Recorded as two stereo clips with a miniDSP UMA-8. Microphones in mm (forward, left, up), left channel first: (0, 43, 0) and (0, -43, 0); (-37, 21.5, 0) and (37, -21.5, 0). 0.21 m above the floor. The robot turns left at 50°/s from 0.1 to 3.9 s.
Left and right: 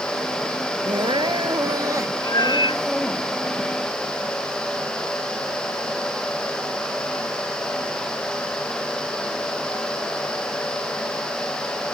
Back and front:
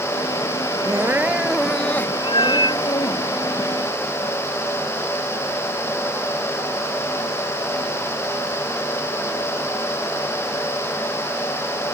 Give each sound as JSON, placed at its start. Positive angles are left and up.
{"t": 0.8, "sound": "crying", "azimuth_deg": -80}
{"t": 2.2, "sound": "a cat meowing", "azimuth_deg": 135}